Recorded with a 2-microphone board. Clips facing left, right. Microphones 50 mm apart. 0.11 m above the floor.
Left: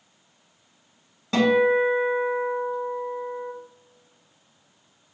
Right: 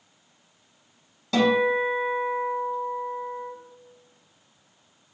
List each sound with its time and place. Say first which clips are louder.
1.3 s a guitar: left 2 dB; 25° left (ahead or behind), 1.9 m